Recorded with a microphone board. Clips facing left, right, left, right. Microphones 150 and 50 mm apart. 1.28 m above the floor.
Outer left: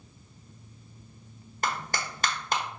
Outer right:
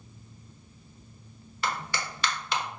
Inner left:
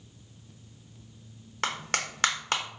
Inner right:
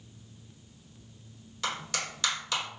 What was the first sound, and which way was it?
A clap, 45° left (ahead or behind).